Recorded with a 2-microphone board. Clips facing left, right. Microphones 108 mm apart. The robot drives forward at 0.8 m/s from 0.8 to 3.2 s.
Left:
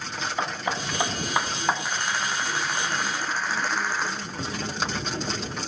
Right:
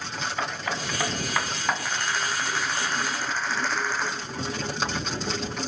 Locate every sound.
0.4 s hammering: 25° left (ahead or behind), 1.1 m; by 1.8 s 20° left (ahead or behind), 1.3 m
1.9 s a rattle: 20° left (ahead or behind), 6.5 m; by 4.1 s 15° left (ahead or behind), 7.5 m